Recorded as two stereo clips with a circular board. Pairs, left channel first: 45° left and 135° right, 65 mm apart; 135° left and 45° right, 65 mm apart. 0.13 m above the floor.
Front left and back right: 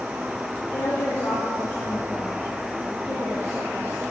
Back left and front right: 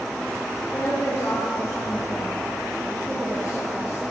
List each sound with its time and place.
0.7 s a woman speaking: 90° left, 3.5 m